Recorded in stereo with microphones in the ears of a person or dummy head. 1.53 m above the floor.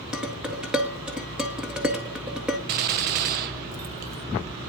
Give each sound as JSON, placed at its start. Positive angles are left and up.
{"t": 0.1, "sound": "dishes clattering", "side_deg": -5, "distance_m": 1.7}
{"t": 2.7, "sound": "a gunshot", "side_deg": -55, "distance_m": 0.8}